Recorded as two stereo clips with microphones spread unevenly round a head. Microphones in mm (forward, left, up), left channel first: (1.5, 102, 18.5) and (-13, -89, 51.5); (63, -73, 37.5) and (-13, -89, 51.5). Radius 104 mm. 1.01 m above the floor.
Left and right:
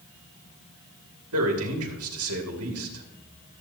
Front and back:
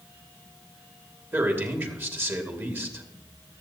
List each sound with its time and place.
1.3 s a man speaking: 105° right, 2 m